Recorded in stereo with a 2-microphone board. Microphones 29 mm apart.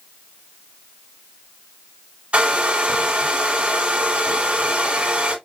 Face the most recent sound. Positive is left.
turn(degrees=-45)  # may be behind; listen again after turning